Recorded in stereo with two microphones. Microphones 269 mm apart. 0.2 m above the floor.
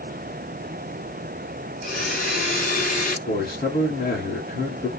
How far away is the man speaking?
About 1.5 m.